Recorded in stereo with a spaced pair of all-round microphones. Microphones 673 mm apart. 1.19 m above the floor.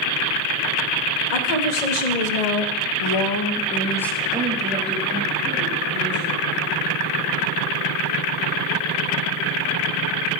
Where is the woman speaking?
80° left, 1.5 m; by 6.5 s 25° right (ahead or behind), 2.5 m.